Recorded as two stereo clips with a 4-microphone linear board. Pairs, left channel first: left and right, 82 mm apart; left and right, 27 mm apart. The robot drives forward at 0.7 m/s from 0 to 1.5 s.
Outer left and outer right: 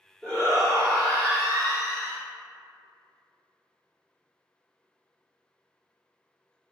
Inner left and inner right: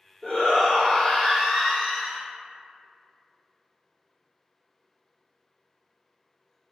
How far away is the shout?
About 1.4 m.